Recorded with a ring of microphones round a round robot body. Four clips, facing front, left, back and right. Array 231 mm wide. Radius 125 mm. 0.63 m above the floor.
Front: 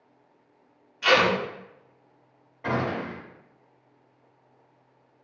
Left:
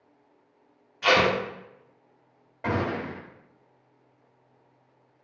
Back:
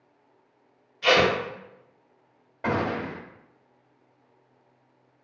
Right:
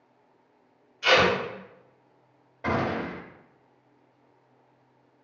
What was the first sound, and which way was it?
Tape being pulled, 75° left.